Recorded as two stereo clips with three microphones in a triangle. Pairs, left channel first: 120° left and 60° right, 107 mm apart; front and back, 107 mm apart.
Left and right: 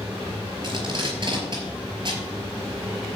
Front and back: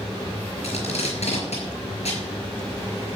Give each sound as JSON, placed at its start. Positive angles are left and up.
{"t": 0.6, "sound": "tape being pulled", "azimuth_deg": -15, "distance_m": 5.0}